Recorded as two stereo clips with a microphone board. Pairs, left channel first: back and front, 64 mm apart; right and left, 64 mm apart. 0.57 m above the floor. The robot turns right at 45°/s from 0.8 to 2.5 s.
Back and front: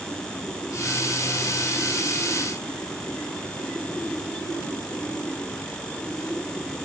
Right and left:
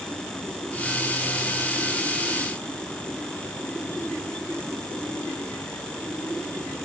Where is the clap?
I don't hear a clap.